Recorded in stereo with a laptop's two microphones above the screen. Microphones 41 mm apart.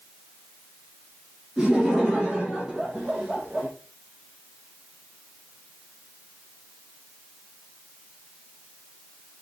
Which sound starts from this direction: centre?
Laughter, at 1.6 s.